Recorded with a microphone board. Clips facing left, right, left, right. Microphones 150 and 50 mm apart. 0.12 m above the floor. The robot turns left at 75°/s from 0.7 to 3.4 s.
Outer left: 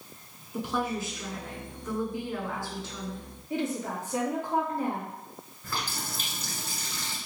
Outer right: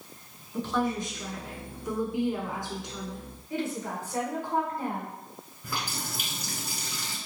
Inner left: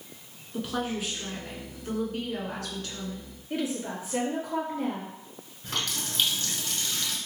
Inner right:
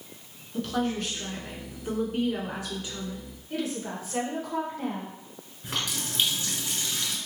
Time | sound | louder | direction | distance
0.5 | a woman speaking | outer right 2 dB, inner right 2 dB | 15° left (ahead or behind) | 1.1 m
3.5 | a woman speaking | outer left 1 dB, inner left 1 dB | 20° left (ahead or behind) | 2.0 m
5.6 | a running tap | even, even | 15° right (ahead or behind) | 1.1 m